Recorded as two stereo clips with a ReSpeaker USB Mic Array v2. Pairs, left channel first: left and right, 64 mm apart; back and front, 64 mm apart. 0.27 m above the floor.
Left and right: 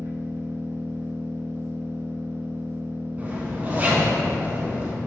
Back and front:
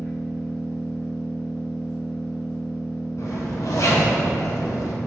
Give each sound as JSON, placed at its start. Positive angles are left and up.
{"t": 0.0, "sound": "an engine running", "azimuth_deg": -130, "distance_m": 0.7}
{"t": 3.2, "sound": "a zipper", "azimuth_deg": -155, "distance_m": 0.7}